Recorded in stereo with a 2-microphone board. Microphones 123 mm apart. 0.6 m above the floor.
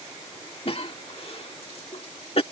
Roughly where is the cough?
Left.